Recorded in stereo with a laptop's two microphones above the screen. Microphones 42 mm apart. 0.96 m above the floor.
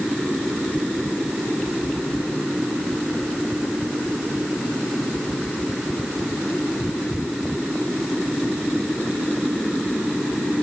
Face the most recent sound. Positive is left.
No sound to turn to.